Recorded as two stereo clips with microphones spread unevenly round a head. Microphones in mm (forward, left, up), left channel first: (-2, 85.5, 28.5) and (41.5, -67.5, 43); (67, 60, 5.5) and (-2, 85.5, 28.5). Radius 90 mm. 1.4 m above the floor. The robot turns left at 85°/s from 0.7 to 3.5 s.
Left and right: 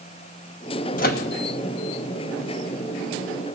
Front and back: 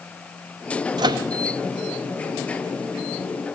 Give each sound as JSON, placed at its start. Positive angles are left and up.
{"t": 1.0, "sound": "a microwave", "azimuth_deg": 150, "distance_m": 0.8}